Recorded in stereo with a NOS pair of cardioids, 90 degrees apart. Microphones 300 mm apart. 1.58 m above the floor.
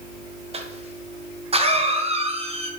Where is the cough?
20° right, 1.3 m.